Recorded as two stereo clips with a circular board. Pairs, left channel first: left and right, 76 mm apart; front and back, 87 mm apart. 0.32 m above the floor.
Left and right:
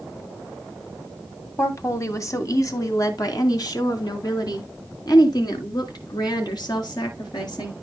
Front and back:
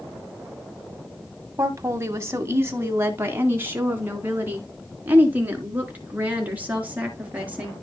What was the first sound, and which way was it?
A woman speaking, 130° left.